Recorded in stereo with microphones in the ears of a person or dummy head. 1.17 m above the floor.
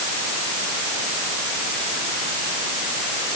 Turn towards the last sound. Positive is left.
No sound to turn to.